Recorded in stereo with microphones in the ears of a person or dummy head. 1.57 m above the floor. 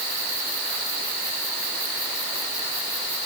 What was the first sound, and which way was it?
Only background noise.